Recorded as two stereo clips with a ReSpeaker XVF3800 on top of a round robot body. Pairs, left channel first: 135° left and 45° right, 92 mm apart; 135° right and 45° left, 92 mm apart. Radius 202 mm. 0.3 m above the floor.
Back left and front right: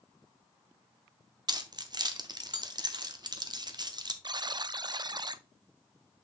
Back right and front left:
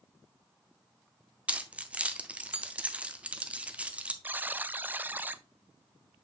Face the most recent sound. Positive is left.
turn(degrees=-20)